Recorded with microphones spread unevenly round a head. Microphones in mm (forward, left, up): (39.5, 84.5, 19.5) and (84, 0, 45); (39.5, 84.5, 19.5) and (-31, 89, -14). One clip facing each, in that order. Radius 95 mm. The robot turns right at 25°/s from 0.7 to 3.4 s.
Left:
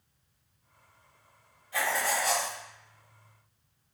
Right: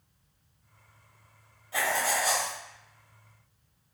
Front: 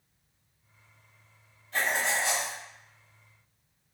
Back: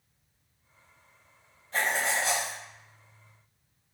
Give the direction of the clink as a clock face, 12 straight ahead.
I don't hear a clink.